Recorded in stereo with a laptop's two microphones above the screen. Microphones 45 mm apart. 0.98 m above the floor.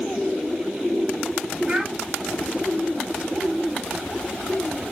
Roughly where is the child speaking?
Centre.